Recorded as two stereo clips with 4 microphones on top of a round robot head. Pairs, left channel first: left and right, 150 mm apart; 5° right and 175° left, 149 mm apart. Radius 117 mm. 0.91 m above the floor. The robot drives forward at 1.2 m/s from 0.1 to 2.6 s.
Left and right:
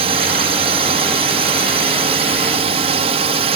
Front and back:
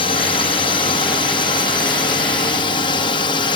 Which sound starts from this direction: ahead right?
A drone, at 0.0 s.